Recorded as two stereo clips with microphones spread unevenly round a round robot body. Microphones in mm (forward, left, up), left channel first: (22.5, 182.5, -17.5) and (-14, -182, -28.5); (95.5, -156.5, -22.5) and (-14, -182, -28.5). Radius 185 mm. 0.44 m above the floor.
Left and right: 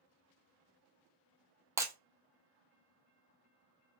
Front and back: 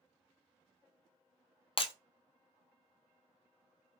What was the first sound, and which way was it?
Breaking glass, 15° right.